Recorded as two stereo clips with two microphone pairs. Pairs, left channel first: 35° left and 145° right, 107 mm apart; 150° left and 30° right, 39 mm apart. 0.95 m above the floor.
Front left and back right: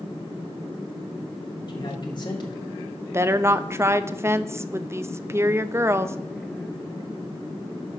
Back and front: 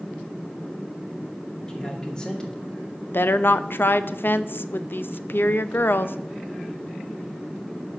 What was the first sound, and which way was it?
A man speaking, 80° left.